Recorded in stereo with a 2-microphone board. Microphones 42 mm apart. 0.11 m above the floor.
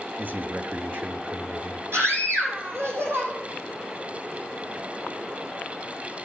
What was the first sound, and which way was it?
A man speaking, 45° right (ahead or behind).